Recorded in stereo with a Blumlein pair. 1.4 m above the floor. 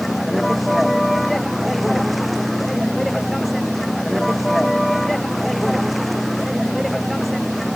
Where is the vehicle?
5° right.